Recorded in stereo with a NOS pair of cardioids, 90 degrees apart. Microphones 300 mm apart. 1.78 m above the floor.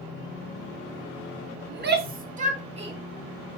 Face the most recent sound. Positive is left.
turn(degrees=-20)